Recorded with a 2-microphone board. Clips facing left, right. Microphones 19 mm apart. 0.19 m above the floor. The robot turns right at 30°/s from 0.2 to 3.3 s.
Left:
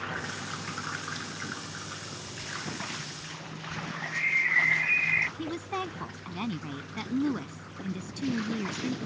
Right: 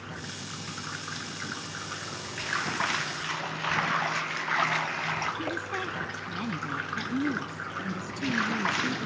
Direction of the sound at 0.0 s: 145° left.